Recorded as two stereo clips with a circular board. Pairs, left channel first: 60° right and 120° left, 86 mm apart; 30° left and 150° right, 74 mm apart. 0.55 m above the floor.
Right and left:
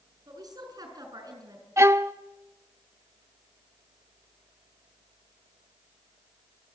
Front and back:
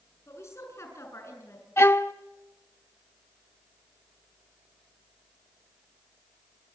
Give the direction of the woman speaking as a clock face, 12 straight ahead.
9 o'clock.